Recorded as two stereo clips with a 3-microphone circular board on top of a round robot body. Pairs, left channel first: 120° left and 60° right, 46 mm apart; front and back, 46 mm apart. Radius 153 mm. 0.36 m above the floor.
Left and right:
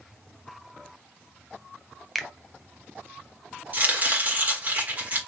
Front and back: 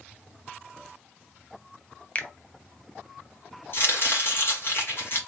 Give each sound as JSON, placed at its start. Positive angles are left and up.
{"t": 2.1, "sound": "a finger snap", "azimuth_deg": 30, "distance_m": 0.9}
{"t": 3.7, "sound": "chopping", "azimuth_deg": -20, "distance_m": 2.0}